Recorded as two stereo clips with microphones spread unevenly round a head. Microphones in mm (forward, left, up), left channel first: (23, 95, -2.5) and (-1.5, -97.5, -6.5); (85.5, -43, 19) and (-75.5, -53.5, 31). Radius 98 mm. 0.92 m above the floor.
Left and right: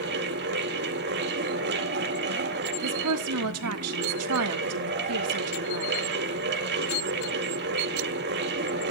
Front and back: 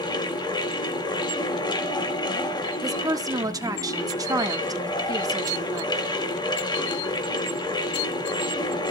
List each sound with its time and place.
0.0 s a fan: 60° right, 2 m
2.8 s a woman speaking: 110° right, 1.6 m